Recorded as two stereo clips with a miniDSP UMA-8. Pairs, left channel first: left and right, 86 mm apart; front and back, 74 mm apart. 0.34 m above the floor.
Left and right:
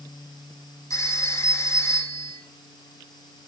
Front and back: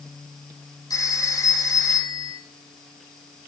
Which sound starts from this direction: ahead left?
A phone ringing, at 0.9 s.